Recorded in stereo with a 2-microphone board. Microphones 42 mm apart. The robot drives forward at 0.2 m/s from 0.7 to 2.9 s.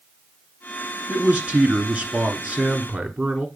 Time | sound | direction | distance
1.1 | a man speaking | 35° right (ahead or behind) | 1.3 m